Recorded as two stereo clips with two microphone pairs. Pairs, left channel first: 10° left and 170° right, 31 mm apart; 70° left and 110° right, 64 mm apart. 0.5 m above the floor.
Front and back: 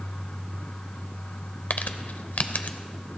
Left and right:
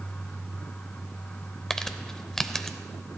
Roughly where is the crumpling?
Ahead.